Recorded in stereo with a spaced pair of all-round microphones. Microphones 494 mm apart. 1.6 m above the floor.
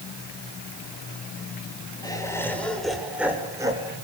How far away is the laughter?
About 7.5 m.